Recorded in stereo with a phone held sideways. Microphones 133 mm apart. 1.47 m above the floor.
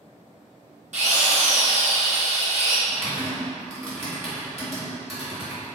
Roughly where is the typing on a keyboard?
Centre.